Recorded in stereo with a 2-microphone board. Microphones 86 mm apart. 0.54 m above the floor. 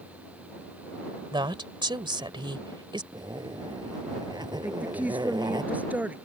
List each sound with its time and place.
1.3 s a woman speaking: 65° right (ahead or behind)
3.1 s a zipper: 55° right (ahead or behind)
4.6 s a woman speaking: 20° right (ahead or behind)